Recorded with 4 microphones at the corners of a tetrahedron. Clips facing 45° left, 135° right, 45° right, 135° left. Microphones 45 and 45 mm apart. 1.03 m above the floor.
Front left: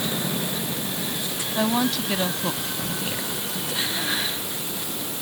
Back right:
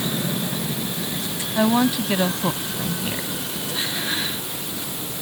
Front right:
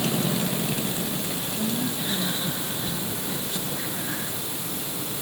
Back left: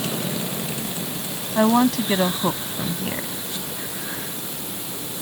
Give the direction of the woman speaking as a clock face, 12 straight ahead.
7 o'clock.